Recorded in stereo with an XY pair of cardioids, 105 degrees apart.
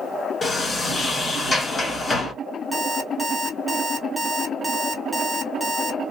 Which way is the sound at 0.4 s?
30° left.